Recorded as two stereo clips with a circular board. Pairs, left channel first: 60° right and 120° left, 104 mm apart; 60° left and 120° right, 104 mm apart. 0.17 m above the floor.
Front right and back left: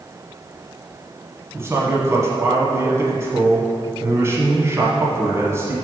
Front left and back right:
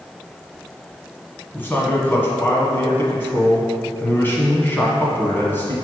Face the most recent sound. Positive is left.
turn(degrees=105)